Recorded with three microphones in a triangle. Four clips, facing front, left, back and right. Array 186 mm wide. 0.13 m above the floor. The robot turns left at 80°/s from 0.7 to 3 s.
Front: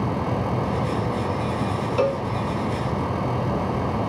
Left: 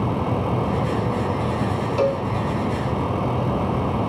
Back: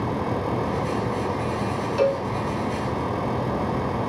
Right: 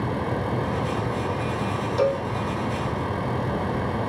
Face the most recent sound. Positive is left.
turn(degrees=-65)